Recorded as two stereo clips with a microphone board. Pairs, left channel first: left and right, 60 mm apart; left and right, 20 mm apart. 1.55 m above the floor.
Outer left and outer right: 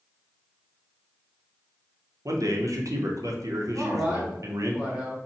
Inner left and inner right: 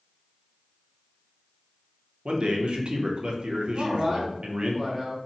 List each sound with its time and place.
2.2 s a man speaking: 60° right (ahead or behind), 0.6 m
3.7 s a man speaking: 15° right (ahead or behind), 1.2 m